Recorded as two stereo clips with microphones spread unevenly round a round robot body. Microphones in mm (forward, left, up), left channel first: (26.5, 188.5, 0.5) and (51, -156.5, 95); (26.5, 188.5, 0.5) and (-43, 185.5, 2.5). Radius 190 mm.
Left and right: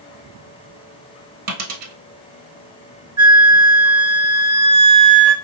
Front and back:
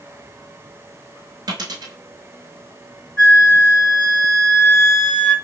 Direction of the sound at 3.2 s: 10° left.